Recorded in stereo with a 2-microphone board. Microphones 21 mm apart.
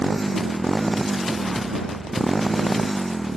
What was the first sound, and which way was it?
A motorcycle, centre (ahead or behind).